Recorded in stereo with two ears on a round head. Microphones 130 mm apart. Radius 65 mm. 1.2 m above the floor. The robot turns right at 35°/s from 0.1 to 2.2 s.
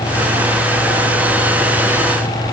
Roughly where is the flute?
I don't hear a flute.